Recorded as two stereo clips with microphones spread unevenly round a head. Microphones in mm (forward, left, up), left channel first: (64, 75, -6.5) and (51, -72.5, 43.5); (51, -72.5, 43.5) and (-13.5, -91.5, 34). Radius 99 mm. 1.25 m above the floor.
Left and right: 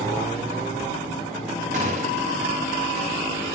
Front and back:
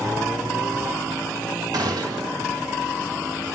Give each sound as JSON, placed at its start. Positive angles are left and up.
{"t": 1.7, "sound": "a gunshot", "azimuth_deg": -145, "distance_m": 2.0}